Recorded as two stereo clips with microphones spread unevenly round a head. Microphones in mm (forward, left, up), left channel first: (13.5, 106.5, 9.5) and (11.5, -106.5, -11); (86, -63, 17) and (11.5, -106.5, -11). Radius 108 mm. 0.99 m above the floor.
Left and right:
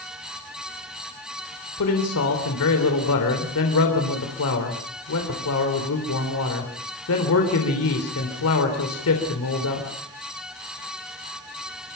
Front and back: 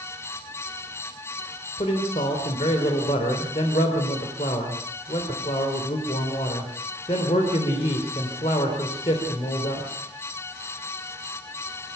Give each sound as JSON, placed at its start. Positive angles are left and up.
{"t": 1.8, "sound": "a man speaking", "azimuth_deg": 70, "distance_m": 3.5}